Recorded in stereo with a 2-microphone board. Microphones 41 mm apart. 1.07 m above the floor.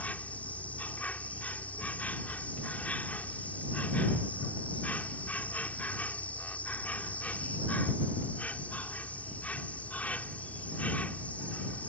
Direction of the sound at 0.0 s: 40° left (ahead or behind).